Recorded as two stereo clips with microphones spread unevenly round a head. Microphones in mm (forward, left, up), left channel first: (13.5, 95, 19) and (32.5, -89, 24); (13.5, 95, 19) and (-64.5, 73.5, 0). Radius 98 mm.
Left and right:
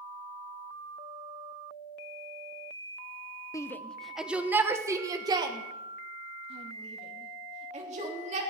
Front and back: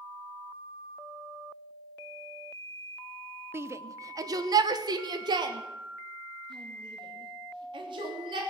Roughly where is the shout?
Behind.